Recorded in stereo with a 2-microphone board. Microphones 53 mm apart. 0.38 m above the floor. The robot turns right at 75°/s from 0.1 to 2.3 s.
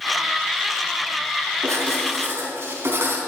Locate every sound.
1.6 s writing: 100° right, 4 m; by 3.2 s 50° right, 4 m